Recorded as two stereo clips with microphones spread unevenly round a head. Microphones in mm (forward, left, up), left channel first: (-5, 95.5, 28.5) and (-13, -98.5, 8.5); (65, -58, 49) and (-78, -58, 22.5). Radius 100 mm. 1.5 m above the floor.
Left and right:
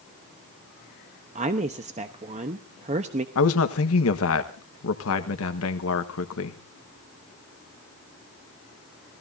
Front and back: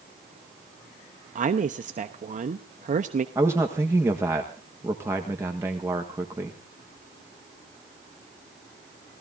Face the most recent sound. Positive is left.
turn(degrees=100)